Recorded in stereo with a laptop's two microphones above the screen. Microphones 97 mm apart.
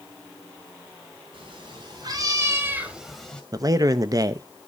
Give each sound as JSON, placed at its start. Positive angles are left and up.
{"t": 1.3, "sound": "a cat meowing", "side_deg": -60, "distance_m": 3.5}
{"t": 3.5, "sound": "a man speaking", "side_deg": -40, "distance_m": 0.7}